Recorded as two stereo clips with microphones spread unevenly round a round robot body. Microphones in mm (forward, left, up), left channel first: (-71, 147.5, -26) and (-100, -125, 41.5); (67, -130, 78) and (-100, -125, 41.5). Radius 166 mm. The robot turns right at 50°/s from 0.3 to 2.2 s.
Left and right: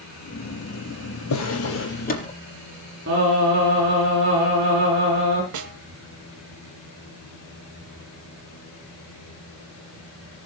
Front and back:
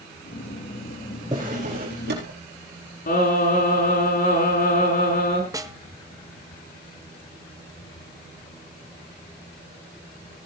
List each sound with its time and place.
1.3 s a drawer: 105° left, 4 m; by 2.3 s 150° left, 4 m
3.1 s singing: 30° right, 6 m
5.5 s a snare drum: 115° right, 1.7 m